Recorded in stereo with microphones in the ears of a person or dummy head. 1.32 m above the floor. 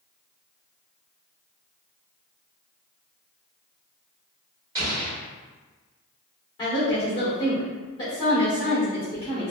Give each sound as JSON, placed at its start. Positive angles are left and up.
{"t": 4.8, "sound": "an explosion", "side_deg": -25, "distance_m": 1.2}
{"t": 6.6, "sound": "a woman speaking", "side_deg": 30, "distance_m": 1.8}